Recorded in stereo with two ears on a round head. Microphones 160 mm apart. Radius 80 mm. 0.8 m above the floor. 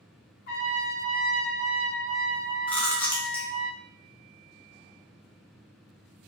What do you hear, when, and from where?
0.5 s a trumpet: 55° left (ahead or behind), 0.8 m
2.7 s chewing: 10° left (ahead or behind), 0.7 m